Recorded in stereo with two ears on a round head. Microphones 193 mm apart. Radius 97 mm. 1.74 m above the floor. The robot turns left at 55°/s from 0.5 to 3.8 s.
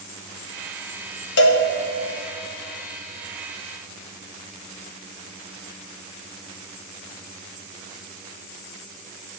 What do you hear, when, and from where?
1.4 s a cowbell: 60° left (ahead or behind), 1.1 m; by 1.6 s 70° left (ahead or behind), 1.1 m